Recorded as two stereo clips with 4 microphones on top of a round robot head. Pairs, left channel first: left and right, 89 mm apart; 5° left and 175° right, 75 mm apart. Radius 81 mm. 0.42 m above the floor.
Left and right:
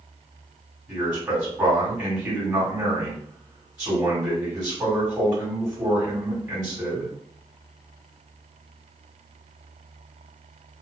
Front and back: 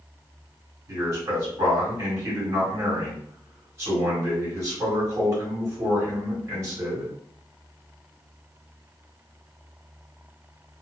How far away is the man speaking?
About 1.7 m.